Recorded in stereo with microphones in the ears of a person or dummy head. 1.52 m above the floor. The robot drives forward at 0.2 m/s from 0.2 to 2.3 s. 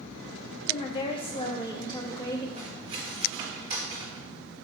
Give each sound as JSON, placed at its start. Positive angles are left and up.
{"t": 0.7, "sound": "a woman speaking", "side_deg": 30, "distance_m": 0.5}
{"t": 2.6, "sound": "cutlery clinking", "side_deg": -30, "distance_m": 1.5}